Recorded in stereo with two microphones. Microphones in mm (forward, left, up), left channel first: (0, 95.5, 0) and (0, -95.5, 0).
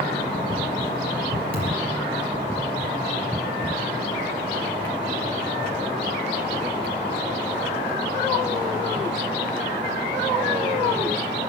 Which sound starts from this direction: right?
A thud, at 1.5 s.